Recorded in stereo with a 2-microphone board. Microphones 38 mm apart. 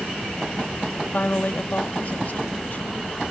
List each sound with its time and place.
1.1 s a woman speaking: 50° left (ahead or behind)